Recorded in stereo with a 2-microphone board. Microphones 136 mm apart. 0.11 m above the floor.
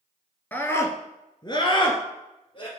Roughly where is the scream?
Centre.